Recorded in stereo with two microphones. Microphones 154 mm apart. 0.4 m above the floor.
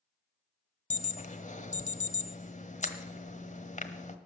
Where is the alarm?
50° left (ahead or behind), 1.2 m.